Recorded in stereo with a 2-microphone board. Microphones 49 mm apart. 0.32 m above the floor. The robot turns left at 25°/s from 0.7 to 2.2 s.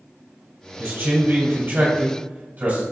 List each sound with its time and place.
0.8 s a man speaking: 80° right, 1.8 m; by 2.8 s 115° right, 1.8 m